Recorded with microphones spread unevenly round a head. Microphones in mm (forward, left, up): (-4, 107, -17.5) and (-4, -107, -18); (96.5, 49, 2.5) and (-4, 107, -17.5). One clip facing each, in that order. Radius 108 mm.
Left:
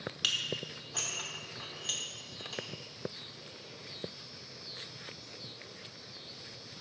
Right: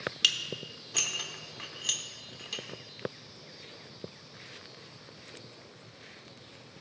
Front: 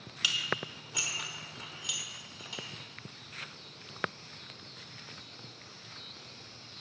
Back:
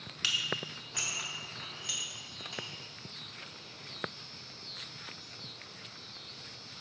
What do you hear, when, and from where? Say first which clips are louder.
0.2 s dishes clattering: left 1 dB, front 2 dB; 85° right, 0.7 m